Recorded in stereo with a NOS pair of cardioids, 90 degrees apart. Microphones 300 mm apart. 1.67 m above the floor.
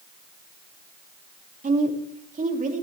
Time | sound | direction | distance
1.6 | a woman speaking | 25° right | 3 m